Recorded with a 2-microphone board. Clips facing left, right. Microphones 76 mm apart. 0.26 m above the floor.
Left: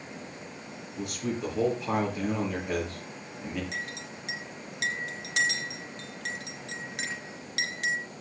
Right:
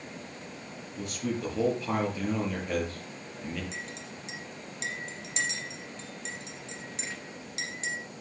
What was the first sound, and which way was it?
A man speaking, 5° left (ahead or behind).